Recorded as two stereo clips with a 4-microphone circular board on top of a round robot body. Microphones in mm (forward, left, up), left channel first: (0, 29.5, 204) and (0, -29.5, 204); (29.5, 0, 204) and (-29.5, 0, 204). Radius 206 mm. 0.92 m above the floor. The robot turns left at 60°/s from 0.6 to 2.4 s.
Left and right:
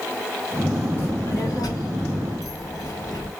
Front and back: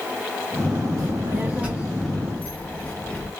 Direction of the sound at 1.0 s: 150° left.